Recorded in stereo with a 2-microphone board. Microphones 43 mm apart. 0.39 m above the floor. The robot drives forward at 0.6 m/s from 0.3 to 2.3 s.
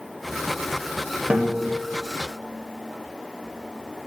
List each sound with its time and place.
1.3 s a guitar: 25° right (ahead or behind), 1.5 m